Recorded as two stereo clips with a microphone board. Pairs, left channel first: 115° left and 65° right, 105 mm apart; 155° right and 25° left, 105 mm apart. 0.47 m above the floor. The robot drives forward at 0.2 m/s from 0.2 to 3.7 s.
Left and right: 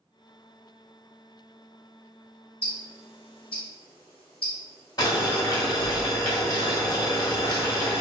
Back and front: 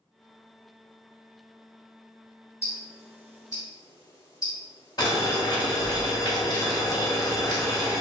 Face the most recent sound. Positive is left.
turn(degrees=155)